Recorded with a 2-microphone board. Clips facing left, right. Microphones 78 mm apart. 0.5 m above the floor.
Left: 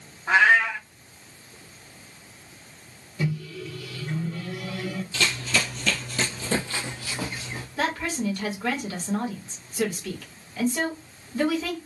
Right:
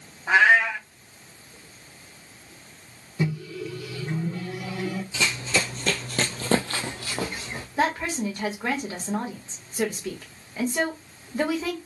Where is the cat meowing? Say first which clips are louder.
Right 1 dB; 10° right (ahead or behind), 1.1 m.